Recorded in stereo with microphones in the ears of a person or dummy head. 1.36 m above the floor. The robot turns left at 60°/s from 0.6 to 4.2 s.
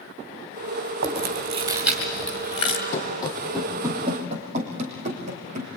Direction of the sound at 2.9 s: 45° left (ahead or behind).